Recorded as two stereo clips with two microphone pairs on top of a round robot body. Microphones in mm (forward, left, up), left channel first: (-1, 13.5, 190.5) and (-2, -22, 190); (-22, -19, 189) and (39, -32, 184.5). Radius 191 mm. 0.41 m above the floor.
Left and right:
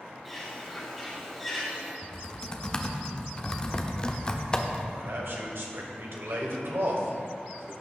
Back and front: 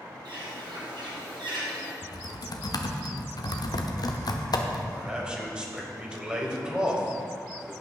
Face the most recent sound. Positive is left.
turn(degrees=-85)